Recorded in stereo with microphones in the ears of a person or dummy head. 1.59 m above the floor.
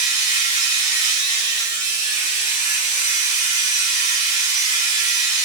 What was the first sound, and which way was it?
A machine running, 35° left (ahead or behind).